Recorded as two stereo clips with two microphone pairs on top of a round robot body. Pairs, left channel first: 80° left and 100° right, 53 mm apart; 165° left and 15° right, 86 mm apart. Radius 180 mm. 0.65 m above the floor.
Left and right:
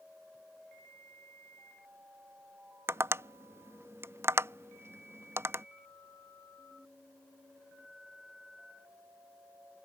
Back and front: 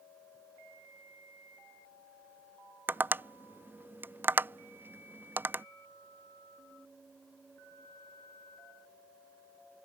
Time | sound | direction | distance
2.9 | tapping | 80° right | ?